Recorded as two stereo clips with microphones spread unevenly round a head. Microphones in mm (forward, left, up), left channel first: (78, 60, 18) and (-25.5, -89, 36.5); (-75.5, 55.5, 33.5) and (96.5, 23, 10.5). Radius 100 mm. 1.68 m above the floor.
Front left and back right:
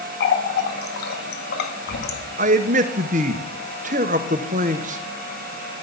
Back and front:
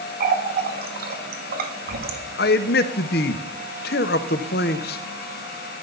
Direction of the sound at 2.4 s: 170° right.